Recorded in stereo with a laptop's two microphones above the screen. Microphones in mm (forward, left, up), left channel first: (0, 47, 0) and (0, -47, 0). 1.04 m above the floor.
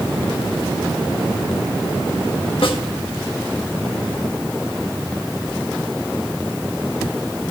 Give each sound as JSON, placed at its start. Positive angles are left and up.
{"t": 2.6, "sound": "a snare drum", "side_deg": 65, "distance_m": 1.5}